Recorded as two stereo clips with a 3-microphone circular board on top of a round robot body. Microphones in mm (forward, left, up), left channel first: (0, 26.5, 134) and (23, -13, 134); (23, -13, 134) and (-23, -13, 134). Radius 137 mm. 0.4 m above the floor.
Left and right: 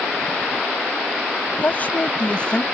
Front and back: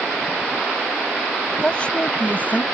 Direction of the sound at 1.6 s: 70° left.